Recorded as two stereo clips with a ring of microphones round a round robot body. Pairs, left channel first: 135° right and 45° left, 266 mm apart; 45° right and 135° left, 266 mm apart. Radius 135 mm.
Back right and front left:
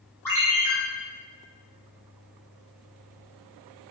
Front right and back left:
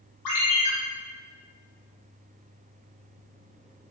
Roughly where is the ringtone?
Ahead right.